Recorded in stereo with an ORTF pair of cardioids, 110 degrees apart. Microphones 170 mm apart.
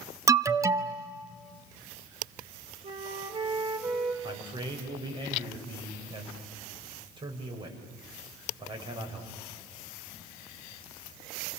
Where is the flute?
30° right, 4 m.